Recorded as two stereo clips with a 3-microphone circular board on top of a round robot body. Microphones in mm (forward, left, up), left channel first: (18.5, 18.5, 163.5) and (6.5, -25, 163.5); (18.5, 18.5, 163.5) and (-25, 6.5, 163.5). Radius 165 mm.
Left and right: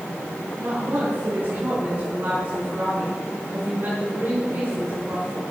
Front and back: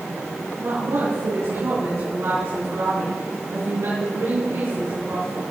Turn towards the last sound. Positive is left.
turn(degrees=-145)